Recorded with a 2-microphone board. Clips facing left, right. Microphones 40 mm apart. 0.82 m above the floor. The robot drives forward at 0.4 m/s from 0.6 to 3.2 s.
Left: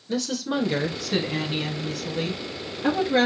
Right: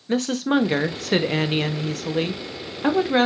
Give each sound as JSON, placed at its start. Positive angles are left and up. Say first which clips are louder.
{"t": 0.1, "sound": "a woman speaking", "louder": "right 6 dB", "side_deg": -40, "distance_m": 0.8}